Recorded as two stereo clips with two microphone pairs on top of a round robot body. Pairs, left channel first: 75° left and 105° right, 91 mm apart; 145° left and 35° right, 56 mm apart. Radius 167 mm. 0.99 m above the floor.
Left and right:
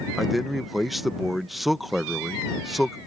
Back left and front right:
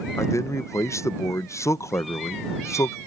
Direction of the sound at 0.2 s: 160° left.